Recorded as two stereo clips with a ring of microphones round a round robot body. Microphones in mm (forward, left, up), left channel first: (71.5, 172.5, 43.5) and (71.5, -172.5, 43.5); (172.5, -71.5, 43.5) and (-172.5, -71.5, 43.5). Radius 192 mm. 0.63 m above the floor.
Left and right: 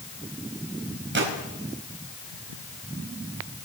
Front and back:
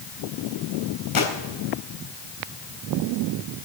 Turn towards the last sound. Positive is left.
turn(degrees=-30)